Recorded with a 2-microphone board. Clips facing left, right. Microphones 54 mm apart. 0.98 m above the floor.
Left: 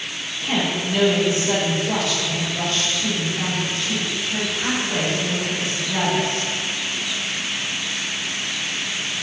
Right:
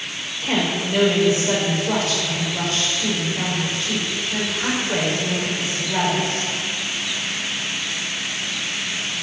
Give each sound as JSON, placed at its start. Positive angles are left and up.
{"t": 0.4, "sound": "a woman speaking", "side_deg": -50, "distance_m": 4.5}